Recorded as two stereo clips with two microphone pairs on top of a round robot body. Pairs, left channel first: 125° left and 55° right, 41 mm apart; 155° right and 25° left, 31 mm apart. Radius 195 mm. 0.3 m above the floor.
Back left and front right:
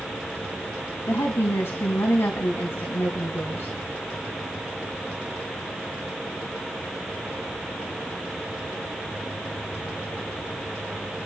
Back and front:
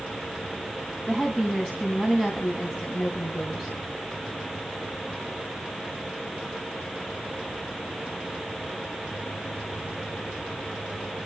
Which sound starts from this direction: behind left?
A woman speaking, at 1.1 s.